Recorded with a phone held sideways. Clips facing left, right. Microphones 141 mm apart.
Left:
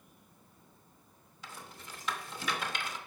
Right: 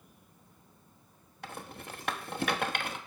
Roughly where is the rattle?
Right.